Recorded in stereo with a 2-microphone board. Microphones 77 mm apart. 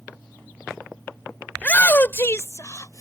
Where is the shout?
15° left (ahead or behind); by 3.0 s 45° left (ahead or behind).